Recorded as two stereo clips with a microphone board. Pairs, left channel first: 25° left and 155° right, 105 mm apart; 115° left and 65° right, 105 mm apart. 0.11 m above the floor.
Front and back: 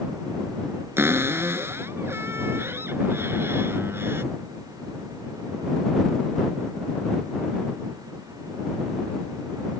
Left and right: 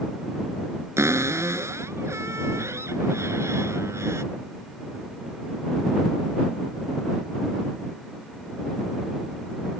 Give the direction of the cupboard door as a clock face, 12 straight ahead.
4 o'clock.